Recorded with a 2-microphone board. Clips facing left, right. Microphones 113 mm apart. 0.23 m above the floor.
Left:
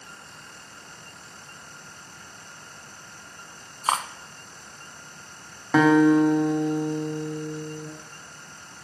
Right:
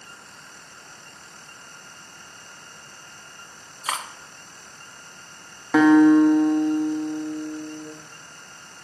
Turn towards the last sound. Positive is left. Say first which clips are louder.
# right 3 dB
turn(degrees=0)  # may be behind; listen again after turning